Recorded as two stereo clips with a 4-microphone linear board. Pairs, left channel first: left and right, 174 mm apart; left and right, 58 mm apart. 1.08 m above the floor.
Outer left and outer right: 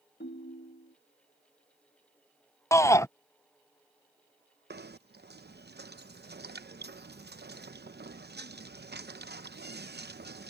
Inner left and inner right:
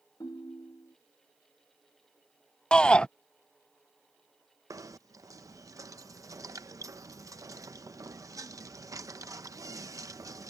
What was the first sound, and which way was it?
A ringtone, 85° left.